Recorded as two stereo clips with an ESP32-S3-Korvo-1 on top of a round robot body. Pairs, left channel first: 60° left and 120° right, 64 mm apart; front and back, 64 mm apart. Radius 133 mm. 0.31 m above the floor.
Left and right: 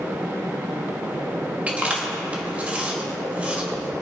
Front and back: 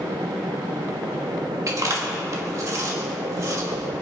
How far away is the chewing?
About 2 m.